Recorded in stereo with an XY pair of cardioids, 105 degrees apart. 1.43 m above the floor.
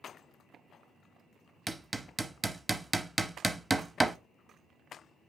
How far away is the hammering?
About 0.7 m.